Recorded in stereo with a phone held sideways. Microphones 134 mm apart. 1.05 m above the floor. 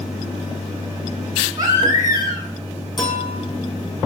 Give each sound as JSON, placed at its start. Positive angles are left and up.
{"t": 1.6, "sound": "a baby crying", "side_deg": -30, "distance_m": 3.5}
{"t": 3.0, "sound": "a clink", "side_deg": 35, "distance_m": 6.5}